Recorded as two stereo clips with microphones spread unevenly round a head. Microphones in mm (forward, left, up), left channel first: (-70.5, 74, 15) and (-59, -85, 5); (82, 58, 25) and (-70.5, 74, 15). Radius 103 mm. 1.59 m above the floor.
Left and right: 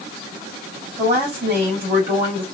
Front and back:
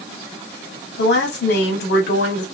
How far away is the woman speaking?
About 3 m.